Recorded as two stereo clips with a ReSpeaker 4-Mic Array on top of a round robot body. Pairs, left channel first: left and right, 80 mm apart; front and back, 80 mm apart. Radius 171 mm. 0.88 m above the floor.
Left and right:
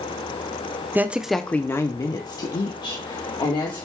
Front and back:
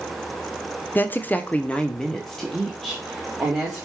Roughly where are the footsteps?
I don't hear footsteps.